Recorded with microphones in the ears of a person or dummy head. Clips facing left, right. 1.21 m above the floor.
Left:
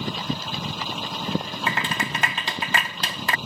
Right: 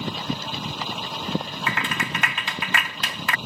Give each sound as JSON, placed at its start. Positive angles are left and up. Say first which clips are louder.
{"t": 1.7, "sound": "a clap", "louder": "left 1 dB", "side_deg": 35}